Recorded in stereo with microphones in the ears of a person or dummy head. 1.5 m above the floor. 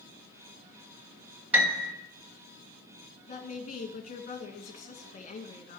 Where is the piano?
10° right (ahead or behind), 1.9 m.